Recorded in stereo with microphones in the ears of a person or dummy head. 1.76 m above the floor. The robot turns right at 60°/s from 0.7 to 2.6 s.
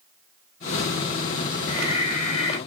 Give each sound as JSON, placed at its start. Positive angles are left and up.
{"t": 1.7, "sound": "breathing", "azimuth_deg": 100, "distance_m": 1.5}